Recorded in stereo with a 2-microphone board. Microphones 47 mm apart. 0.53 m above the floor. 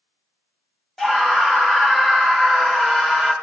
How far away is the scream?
About 0.7 m.